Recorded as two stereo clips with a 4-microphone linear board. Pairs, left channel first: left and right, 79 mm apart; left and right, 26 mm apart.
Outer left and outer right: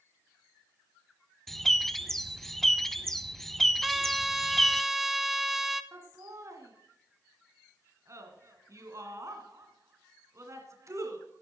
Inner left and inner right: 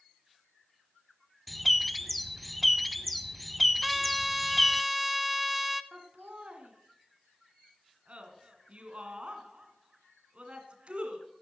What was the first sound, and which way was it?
A bird, 5° left (ahead or behind).